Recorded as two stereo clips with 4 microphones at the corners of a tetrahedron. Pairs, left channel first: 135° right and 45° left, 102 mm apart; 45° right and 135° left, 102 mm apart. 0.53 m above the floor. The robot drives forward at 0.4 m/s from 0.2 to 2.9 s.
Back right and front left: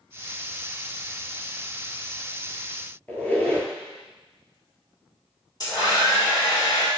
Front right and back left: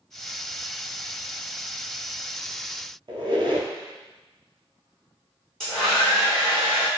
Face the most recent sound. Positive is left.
turn(degrees=-125)